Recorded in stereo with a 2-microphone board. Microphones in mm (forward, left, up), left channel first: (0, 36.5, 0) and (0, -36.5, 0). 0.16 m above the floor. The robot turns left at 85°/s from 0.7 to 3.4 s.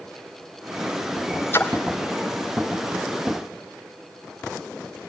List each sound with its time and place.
1.5 s a splash: 30° left (ahead or behind), 1.6 m; by 1.7 s 15° left (ahead or behind), 1.6 m